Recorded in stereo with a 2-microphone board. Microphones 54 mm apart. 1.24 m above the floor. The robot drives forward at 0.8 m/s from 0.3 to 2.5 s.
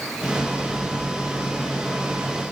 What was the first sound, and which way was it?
Only background noise.